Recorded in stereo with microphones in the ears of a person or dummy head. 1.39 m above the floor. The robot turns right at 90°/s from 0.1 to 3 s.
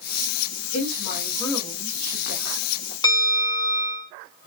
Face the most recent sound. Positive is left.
turn(degrees=20)  # may be behind; listen again after turning